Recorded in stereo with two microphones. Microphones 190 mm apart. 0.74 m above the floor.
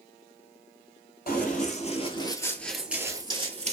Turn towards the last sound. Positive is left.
turn(degrees=-40)  # may be behind; listen again after turning